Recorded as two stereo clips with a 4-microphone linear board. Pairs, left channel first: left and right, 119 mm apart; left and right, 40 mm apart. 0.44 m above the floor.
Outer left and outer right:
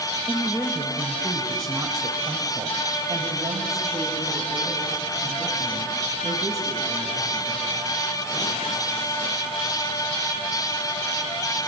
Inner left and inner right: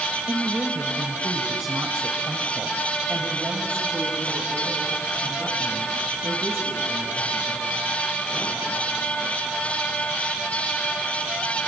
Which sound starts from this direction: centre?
A woman speaking, at 0.3 s.